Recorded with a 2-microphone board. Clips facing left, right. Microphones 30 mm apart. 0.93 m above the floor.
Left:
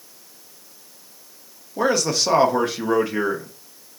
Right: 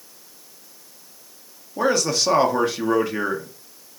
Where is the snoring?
I don't hear snoring.